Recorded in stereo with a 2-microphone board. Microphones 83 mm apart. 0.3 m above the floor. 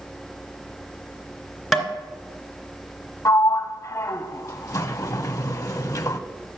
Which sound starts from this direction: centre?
Tapping, at 1.7 s.